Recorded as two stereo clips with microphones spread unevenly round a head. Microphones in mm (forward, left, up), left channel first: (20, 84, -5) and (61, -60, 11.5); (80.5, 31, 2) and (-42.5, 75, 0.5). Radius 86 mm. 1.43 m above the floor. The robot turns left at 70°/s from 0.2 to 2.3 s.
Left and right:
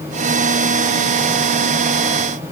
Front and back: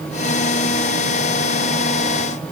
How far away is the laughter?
No laughter in this recording.